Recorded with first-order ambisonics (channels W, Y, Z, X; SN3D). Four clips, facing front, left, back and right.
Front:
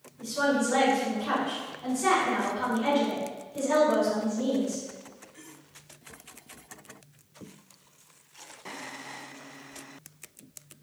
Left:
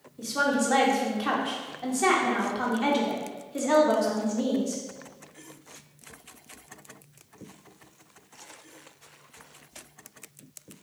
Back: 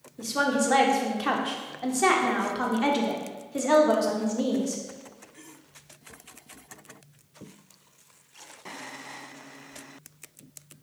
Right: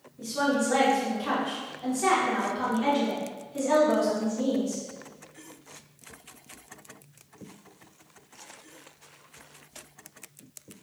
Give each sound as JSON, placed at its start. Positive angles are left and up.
{"t": 0.2, "sound": "a woman speaking", "azimuth_deg": 155, "distance_m": 0.9}